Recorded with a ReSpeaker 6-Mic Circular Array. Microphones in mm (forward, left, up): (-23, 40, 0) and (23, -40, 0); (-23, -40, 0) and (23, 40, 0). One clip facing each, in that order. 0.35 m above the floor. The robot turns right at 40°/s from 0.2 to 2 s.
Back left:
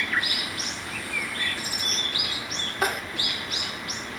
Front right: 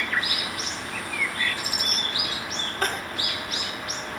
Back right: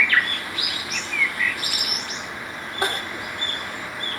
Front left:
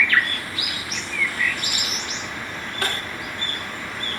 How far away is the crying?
About 0.9 m.